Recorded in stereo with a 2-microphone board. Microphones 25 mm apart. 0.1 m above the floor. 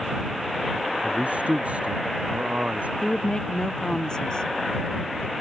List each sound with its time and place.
1.0 s a man speaking: 70° right (ahead or behind)
3.0 s a woman speaking: 35° left (ahead or behind)